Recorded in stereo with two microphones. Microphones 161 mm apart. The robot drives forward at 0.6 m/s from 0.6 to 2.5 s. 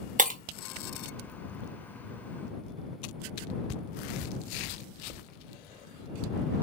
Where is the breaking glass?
50° right (ahead or behind), 0.5 m.